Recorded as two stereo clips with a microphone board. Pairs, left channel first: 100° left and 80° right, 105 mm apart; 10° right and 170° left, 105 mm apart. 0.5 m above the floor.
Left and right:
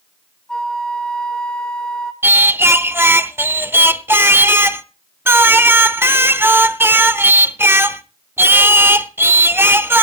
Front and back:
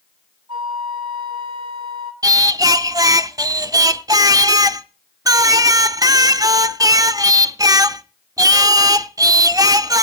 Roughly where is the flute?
Behind.